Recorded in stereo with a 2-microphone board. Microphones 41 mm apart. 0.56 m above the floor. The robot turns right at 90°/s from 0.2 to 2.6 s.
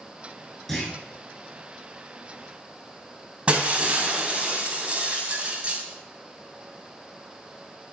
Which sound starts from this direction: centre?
A clunk, at 0.7 s.